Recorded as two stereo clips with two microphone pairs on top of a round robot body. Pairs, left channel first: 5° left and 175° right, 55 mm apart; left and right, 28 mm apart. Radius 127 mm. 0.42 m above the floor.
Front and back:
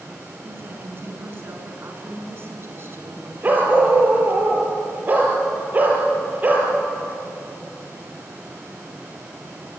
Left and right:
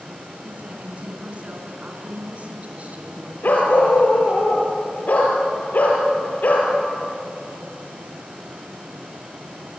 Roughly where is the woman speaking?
Behind right.